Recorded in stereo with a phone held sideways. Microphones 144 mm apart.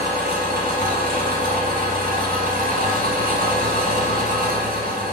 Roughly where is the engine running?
Right.